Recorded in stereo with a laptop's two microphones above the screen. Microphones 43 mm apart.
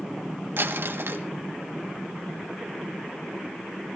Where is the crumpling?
65° right (ahead or behind), 1.5 m.